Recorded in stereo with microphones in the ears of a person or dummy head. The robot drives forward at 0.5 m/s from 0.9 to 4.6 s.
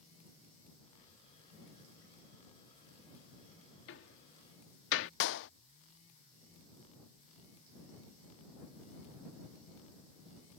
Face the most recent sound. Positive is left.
turn(degrees=60)  # may be behind; listen again after turning